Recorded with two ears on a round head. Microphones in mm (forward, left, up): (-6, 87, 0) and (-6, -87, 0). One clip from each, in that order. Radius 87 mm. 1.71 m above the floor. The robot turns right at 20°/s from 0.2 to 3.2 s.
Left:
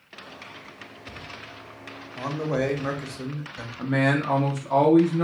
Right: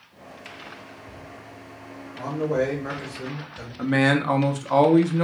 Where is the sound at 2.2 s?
65° left (ahead or behind), 1.1 m; by 3.7 s 70° left (ahead or behind), 1.1 m.